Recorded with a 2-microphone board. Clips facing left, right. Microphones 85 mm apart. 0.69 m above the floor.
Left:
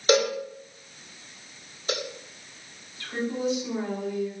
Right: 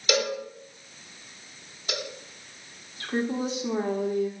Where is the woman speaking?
50° right (ahead or behind), 1.5 m.